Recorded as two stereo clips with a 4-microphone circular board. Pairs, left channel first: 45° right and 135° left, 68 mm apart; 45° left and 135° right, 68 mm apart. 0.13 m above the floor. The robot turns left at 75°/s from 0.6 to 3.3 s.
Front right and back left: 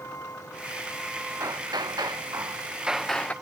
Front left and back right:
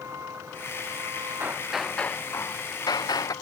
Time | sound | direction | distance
0.0 | a vehicle | 90° right | ?
1.4 | hammering | 165° left | ?